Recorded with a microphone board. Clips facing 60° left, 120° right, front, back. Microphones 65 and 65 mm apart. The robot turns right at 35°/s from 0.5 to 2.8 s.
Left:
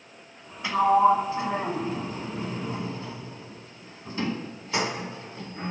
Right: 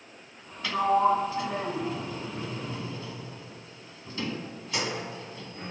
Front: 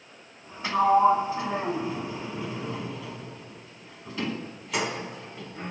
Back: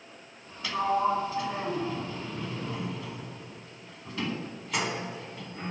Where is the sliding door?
10° left, 1.1 m; by 5.7 s 85° left, 1.1 m.